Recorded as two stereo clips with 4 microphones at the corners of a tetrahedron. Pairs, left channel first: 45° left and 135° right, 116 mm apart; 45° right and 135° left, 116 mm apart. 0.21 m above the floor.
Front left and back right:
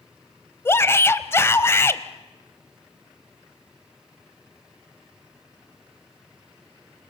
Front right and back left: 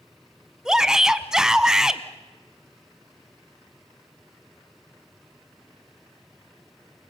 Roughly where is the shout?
Ahead left.